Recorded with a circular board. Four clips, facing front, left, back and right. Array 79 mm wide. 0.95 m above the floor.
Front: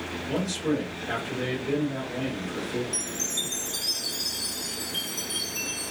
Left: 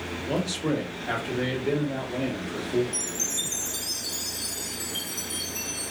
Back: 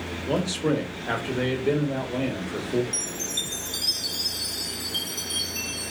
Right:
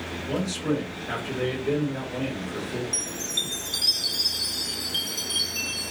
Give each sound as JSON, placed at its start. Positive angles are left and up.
{"t": 0.3, "sound": "a man speaking", "azimuth_deg": 160, "distance_m": 1.0}
{"t": 2.9, "sound": "a chime", "azimuth_deg": -110, "distance_m": 0.5}